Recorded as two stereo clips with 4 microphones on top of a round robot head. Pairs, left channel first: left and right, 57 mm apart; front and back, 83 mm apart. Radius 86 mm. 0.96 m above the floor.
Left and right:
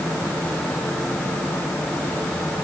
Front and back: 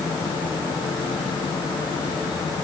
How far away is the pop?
No pop in this recording.